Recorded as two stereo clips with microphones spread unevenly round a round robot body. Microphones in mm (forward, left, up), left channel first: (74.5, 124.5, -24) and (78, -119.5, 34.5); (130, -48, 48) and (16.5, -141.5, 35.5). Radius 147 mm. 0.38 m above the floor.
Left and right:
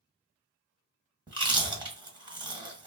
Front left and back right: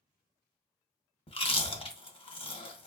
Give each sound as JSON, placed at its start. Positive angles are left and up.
{"t": 1.3, "sound": "chewing", "azimuth_deg": -10, "distance_m": 1.0}